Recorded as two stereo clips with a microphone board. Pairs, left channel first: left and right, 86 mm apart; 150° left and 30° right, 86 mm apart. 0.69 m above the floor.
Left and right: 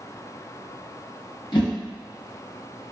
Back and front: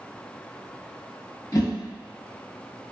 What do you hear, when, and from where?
1.5 s a whoosh: 105° left, 0.9 m